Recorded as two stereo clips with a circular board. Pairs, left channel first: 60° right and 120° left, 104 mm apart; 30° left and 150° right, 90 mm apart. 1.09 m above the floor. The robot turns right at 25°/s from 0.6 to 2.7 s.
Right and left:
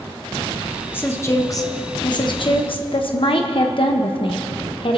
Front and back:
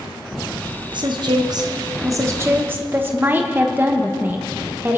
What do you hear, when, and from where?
0.9 s a woman speaking: 130° right, 1.1 m; by 5.0 s 85° right, 1.1 m